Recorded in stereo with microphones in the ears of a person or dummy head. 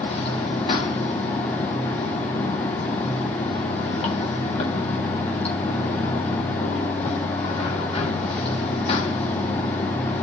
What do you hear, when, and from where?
0.0 s running water: 40° left (ahead or behind), 2.5 m